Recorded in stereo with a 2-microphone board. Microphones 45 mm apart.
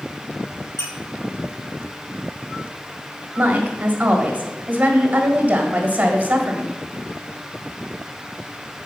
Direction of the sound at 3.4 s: 35° right (ahead or behind).